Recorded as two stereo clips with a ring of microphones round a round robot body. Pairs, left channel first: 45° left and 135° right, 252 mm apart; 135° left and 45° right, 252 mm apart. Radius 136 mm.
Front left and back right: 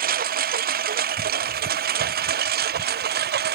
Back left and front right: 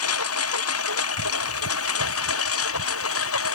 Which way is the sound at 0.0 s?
170° left.